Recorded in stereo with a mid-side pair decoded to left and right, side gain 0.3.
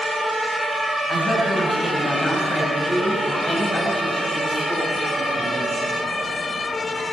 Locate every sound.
1.1 s a woman speaking: 70° left, 6.5 m; by 5.7 s 45° left, 5.5 m